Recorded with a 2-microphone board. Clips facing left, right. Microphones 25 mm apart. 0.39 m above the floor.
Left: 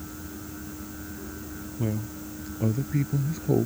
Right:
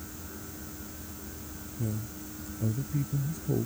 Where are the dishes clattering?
I don't hear dishes clattering.